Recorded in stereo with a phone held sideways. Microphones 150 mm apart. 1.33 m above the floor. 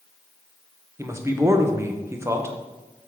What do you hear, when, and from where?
1.0 s a man speaking: 20° right (ahead or behind), 0.9 m